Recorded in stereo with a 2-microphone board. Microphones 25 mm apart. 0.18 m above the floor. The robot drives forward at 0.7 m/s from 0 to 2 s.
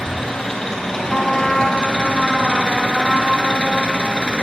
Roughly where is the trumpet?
Centre.